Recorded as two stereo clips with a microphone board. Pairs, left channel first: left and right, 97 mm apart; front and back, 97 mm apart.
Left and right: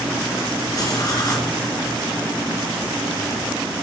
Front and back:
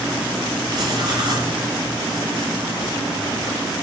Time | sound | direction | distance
0.7 | writing | 140° left | 2 m